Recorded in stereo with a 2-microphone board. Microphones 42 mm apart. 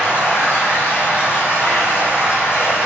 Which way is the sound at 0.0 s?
60° left (ahead or behind).